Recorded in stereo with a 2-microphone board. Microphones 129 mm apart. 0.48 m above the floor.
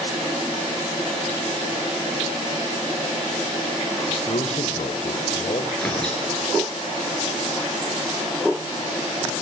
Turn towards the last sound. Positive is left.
turn(degrees=5)  # may be behind; listen again after turning